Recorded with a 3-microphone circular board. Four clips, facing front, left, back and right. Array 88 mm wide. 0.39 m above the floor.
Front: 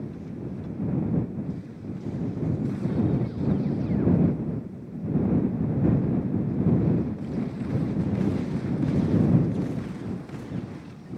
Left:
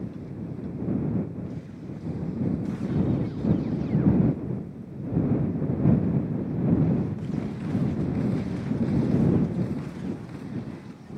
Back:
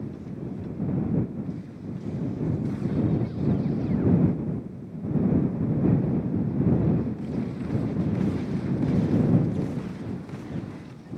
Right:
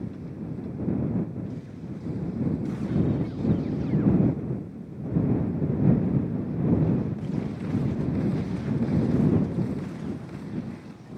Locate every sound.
Only background noise.